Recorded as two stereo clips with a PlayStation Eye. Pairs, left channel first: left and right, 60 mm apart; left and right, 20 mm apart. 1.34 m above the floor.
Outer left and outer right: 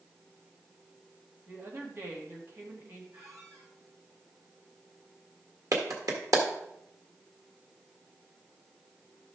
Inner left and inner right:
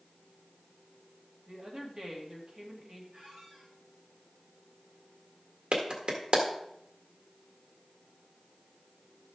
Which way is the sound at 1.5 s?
40° right (ahead or behind).